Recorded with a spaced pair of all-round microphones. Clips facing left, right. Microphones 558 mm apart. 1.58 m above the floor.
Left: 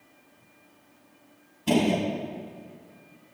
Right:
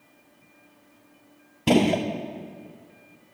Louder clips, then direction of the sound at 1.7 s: Right 3 dB; 80° right.